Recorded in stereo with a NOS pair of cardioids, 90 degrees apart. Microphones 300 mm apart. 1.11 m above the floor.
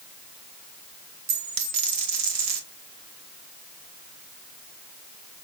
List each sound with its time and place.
1.3 s a dropped coin: 70° right, 1.4 m